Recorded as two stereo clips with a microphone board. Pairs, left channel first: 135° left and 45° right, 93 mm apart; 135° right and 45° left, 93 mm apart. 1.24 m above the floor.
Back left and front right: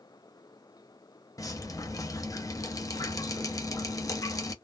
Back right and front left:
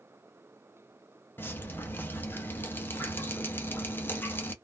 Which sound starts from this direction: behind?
Dripping, at 1.4 s.